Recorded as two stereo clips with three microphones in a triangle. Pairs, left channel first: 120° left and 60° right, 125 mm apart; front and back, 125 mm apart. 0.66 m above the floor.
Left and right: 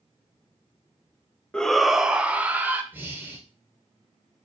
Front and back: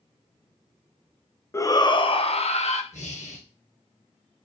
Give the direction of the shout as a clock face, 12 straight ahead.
11 o'clock.